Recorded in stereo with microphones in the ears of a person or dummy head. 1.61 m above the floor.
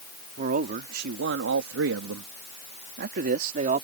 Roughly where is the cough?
I don't hear a cough.